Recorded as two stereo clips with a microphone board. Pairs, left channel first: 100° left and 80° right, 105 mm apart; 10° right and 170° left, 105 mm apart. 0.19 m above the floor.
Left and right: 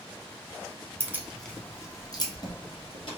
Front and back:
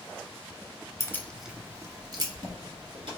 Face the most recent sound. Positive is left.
turn(degrees=135)